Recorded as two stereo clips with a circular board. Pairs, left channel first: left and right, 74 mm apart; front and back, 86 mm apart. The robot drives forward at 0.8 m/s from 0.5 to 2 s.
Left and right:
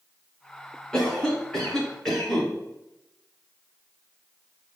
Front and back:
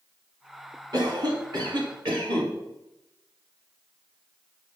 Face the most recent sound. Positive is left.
turn(degrees=170)